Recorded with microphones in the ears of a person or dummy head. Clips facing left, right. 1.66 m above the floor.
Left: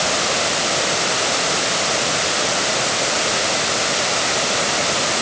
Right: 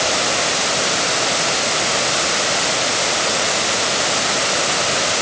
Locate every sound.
Only background noise.